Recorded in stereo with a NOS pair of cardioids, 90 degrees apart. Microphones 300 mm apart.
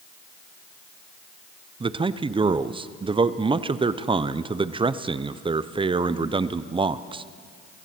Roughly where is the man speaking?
Ahead.